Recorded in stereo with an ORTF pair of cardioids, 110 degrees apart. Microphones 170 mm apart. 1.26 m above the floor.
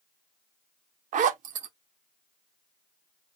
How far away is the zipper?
About 0.6 m.